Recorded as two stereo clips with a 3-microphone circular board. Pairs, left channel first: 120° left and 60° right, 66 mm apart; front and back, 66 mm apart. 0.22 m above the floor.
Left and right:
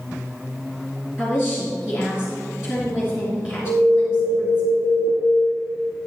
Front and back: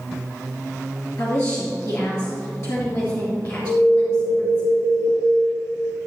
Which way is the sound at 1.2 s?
15° left.